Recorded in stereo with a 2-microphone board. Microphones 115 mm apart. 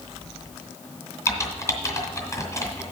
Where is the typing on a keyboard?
25° left (ahead or behind), 2.5 m.